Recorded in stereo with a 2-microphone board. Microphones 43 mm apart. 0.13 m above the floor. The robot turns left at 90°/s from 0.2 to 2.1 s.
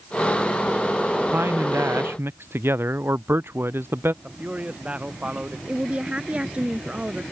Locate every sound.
1.3 s a man speaking: 45° right; by 4.1 s 120° right
4.2 s a man speaking: 30° right (ahead or behind)
5.7 s a woman speaking: 25° right (ahead or behind)